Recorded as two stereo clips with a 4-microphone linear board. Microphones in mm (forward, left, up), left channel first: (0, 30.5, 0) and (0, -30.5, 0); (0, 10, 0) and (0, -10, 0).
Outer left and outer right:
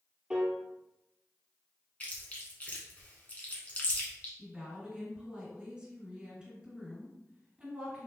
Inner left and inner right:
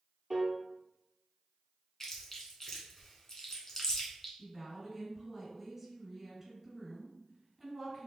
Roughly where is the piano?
Centre.